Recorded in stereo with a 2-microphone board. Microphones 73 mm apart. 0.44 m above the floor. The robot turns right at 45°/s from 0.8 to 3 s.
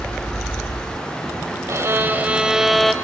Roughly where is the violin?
Ahead right.